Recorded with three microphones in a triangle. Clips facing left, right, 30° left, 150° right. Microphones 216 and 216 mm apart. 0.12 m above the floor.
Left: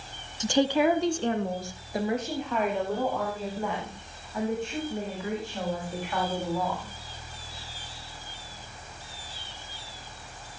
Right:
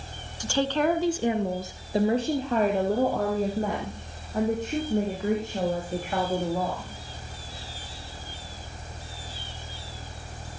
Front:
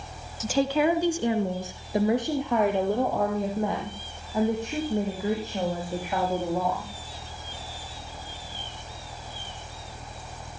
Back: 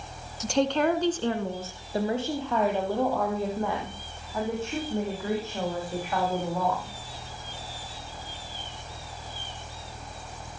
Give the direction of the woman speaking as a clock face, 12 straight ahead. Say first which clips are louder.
Left 2 dB, front 1 dB; 8 o'clock.